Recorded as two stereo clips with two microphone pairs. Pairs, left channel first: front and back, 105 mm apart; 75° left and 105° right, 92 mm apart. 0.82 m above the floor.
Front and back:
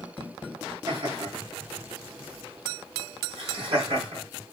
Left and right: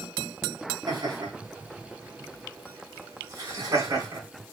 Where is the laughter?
140° right, 5 m; by 4.2 s 155° right, 6.5 m.